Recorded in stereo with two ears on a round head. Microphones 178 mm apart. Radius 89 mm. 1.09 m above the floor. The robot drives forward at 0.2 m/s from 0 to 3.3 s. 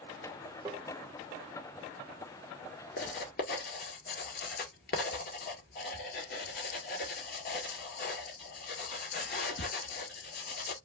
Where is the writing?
50° left (ahead or behind), 1.7 m.